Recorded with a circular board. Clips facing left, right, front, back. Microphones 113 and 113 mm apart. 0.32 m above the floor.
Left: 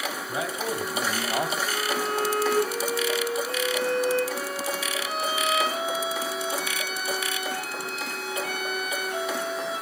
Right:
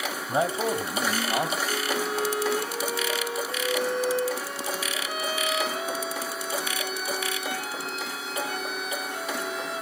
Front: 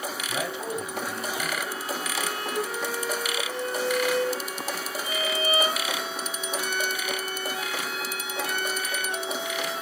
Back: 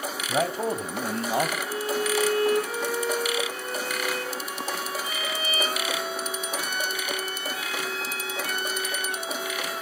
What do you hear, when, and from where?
0.3 s a man speaking: 135° right, 2.5 m; by 1.6 s 175° left, 1.9 m
1.7 s a violin: 65° left, 9.5 m